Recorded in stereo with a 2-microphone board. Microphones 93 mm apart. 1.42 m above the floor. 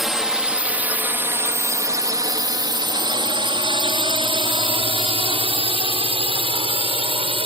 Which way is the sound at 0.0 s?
Centre (ahead or behind).